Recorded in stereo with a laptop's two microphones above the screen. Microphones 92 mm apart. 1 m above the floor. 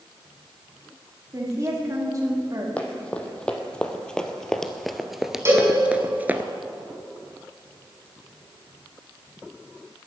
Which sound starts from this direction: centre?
Running footsteps, at 2.8 s.